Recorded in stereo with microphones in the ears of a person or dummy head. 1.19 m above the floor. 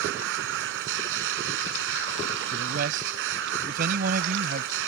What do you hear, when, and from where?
0.0 s a machine running: 60° right (ahead or behind)
2.5 s a man speaking: 50° right (ahead or behind)